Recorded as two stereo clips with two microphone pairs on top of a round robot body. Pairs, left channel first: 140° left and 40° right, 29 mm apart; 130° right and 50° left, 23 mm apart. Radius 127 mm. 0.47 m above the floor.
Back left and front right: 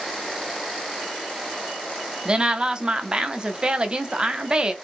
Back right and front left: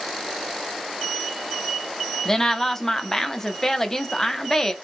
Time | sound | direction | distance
2.2 | a woman speaking | 55° right | 0.8 m